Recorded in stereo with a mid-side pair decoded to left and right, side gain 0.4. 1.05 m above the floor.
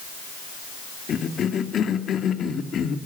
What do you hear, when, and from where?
1.1 s a cough: 60° left, 2.5 m